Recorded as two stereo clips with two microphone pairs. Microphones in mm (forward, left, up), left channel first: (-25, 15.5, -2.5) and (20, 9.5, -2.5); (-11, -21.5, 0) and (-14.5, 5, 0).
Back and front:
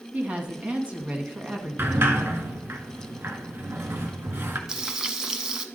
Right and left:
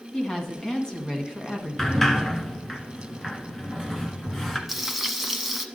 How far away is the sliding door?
About 0.9 m.